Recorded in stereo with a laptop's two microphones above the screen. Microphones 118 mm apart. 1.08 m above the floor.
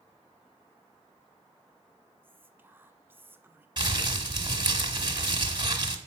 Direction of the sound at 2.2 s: 20° right (ahead or behind).